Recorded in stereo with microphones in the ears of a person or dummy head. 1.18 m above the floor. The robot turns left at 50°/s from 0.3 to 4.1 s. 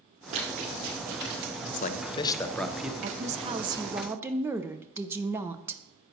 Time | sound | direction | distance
0.3 | running footsteps | 40° right (ahead or behind) | 4.5 m
1.7 | a man speaking | 55° left | 0.7 m
3.0 | a woman speaking | 115° right | 0.5 m